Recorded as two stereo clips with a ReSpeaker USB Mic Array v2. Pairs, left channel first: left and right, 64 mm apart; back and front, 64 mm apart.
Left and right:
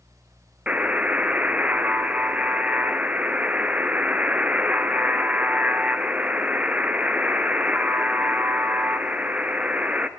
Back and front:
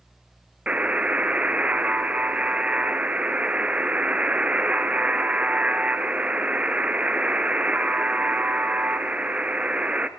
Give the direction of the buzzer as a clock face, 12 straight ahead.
2 o'clock.